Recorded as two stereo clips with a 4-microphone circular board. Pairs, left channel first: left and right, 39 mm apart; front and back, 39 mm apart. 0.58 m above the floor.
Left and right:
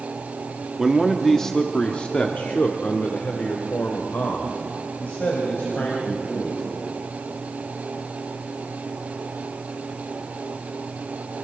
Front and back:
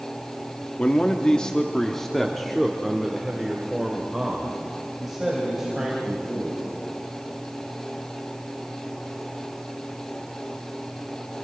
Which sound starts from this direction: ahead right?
A man speaking, at 0.8 s.